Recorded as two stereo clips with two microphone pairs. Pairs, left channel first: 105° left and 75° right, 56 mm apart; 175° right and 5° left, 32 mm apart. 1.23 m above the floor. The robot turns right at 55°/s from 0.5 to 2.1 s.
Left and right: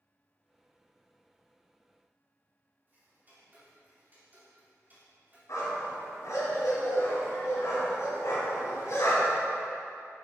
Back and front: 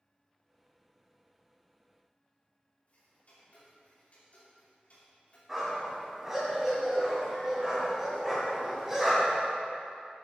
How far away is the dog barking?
About 3 m.